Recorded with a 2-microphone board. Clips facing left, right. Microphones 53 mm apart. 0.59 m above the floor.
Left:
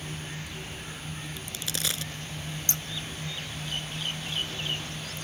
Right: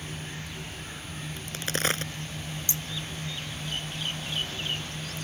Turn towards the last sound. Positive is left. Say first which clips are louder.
# even
turn(degrees=55)  # may be behind; listen again after turning